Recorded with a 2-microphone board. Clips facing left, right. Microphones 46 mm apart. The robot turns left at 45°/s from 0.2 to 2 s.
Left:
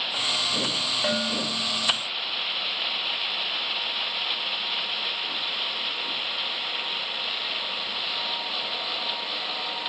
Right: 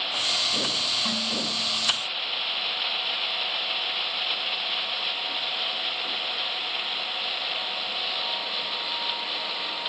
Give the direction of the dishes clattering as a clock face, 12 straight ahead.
8 o'clock.